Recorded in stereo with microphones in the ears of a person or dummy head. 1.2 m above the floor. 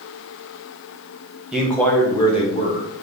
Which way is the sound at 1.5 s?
Centre (ahead or behind).